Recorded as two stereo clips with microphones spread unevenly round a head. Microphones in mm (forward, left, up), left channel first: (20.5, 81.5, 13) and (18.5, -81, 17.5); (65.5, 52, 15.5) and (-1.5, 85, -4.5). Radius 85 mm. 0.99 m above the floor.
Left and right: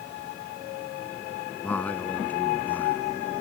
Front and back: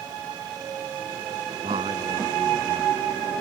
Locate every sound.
1.6 s a man speaking: 170° left